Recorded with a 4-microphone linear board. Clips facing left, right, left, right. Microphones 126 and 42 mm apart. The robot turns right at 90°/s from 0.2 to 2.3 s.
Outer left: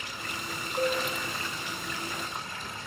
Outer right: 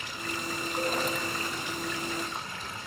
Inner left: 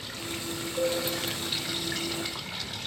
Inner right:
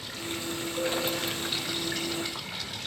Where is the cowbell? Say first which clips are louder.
Outer left 4 dB, inner left 3 dB; 15° left (ahead or behind), 0.6 m; by 1.0 s 35° left (ahead or behind), 0.6 m.